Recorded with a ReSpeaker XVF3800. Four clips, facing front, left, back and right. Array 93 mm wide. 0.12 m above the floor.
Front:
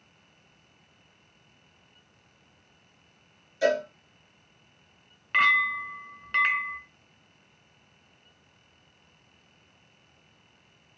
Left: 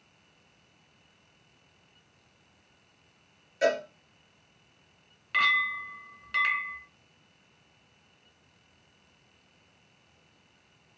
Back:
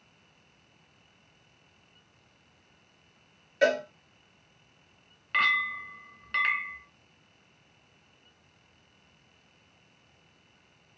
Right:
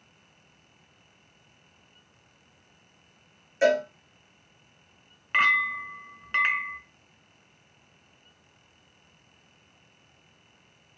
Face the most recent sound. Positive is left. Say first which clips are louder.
# right 3 dB, front 4 dB
turn(degrees=-70)